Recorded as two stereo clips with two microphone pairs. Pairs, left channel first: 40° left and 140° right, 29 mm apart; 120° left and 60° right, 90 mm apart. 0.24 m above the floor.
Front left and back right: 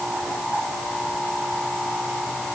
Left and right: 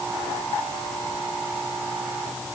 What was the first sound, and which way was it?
Only background noise.